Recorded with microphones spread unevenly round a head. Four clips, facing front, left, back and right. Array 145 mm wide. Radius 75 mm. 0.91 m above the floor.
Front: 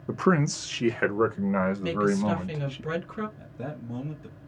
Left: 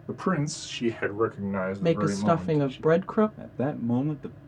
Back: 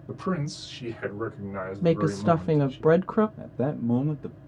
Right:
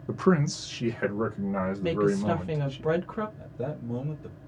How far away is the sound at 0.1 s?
About 0.8 m.